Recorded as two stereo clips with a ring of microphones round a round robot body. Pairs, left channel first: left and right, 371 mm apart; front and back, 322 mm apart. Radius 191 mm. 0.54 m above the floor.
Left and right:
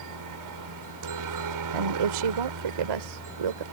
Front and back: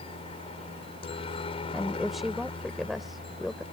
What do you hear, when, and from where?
0.0 s a helicopter: 70° right
1.7 s a woman speaking: 90° right